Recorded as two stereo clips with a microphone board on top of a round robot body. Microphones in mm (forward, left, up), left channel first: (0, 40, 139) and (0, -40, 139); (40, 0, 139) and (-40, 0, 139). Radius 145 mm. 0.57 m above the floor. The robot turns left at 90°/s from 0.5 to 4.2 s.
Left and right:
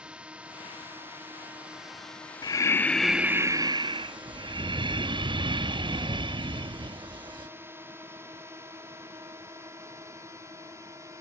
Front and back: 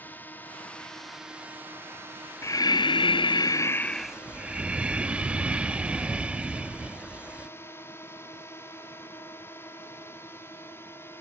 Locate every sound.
0.0 s a drone: 30° right; by 11.2 s 55° right
2.4 s breathing: 55° left; by 7.5 s 105° right